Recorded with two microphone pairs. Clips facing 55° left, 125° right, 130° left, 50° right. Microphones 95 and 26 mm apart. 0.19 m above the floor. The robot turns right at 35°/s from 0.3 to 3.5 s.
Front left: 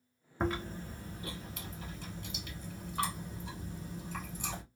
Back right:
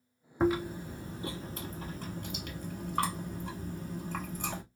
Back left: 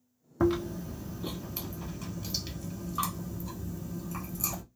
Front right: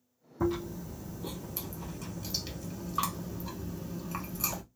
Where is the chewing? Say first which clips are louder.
Back right 6 dB, back left 4 dB; 150° left, 1.1 m; by 4.6 s 100° right, 1.1 m.